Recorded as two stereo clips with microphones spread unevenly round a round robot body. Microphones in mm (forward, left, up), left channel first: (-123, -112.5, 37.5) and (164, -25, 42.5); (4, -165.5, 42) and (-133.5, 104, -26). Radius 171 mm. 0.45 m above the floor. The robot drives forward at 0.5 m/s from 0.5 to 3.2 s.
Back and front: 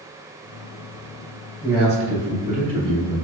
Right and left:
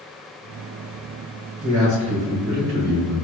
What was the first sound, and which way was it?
A man speaking, 125° left.